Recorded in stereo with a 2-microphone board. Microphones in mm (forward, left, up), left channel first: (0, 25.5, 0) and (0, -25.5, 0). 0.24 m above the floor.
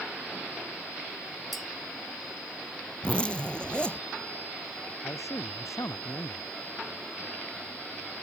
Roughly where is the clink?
Centre.